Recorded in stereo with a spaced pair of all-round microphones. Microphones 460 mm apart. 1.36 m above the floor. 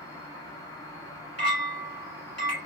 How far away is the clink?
About 1.2 m.